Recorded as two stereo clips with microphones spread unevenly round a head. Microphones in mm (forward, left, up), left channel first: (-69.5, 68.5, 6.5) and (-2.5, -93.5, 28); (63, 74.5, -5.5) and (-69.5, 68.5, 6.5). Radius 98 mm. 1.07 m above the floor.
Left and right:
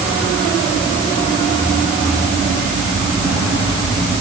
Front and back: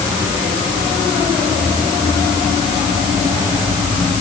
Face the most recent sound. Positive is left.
No sound to turn to.